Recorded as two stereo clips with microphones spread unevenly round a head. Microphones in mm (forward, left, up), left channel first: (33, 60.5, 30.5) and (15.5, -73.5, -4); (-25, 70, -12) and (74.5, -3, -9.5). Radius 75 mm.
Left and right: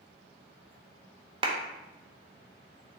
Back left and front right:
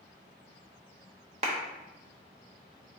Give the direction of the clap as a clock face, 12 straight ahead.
3 o'clock.